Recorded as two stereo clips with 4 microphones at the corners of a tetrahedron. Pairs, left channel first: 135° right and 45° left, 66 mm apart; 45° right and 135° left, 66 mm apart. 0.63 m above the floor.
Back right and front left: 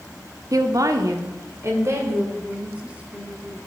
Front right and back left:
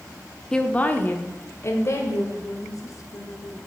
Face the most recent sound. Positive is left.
turn(degrees=-25)